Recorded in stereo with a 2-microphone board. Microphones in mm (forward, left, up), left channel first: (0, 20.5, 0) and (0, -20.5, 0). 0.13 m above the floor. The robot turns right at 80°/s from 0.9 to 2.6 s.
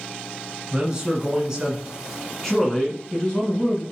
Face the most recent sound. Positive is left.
turn(degrees=10)  # may be behind; listen again after turning